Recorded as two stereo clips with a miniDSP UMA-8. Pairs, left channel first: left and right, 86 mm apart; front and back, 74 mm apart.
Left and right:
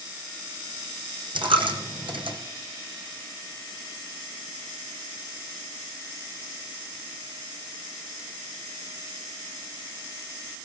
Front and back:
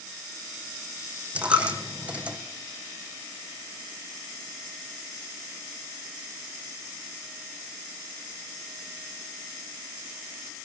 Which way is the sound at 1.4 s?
105° right.